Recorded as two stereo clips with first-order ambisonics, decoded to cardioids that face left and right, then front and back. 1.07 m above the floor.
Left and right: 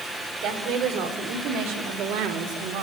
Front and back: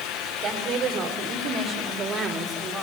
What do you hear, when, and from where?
0.4 s a woman speaking: 125° right, 4.5 m; by 2.8 s 100° right, 2.5 m